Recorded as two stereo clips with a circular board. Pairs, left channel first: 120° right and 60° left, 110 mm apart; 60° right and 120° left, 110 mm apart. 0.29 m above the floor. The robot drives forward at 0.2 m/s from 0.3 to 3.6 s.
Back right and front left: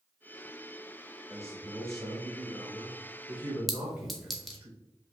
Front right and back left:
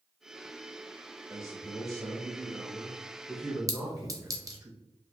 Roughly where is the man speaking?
Left.